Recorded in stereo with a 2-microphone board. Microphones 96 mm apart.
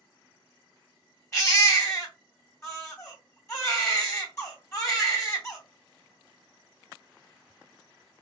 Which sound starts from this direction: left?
A baby crying, at 1.3 s.